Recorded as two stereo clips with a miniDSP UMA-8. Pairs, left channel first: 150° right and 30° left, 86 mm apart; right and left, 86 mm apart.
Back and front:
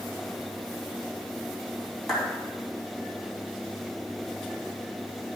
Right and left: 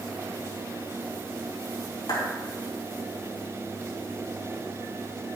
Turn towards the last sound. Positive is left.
turn(degrees=-65)